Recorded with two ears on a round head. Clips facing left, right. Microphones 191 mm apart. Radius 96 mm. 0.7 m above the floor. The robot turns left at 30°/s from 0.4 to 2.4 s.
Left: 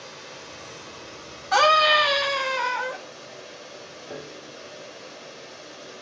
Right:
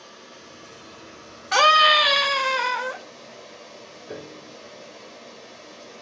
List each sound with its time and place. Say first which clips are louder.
0.0 s running water: left 3 dB; 70° left, 1.4 m; by 6.0 s 10° left, 1.4 m
1.5 s a scream: left 1 dB; 35° right (ahead or behind), 1.2 m; by 3.0 s 45° right (ahead or behind), 1.2 m
4.1 s a piano: right 1 dB; 25° right (ahead or behind), 2.5 m